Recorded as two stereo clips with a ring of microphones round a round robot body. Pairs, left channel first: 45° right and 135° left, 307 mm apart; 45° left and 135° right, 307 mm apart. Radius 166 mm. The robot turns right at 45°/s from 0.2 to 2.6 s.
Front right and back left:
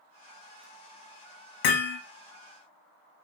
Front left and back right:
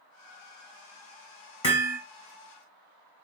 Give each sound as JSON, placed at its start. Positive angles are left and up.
{"t": 1.6, "sound": "hammering", "azimuth_deg": -30, "distance_m": 0.8}